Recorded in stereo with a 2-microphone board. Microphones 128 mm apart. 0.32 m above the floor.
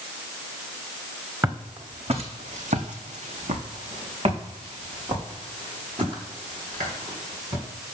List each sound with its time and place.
1.4 s footsteps: 25° right (ahead or behind), 1.2 m; by 7.7 s 35° right (ahead or behind), 4.5 m